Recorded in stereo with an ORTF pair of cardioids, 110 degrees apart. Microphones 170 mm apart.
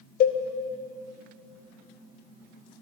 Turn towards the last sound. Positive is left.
turn(degrees=65)